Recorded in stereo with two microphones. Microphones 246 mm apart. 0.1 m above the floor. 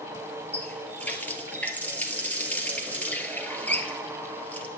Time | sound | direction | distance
0.5 | a running tap | 5° left (ahead or behind) | 1.3 m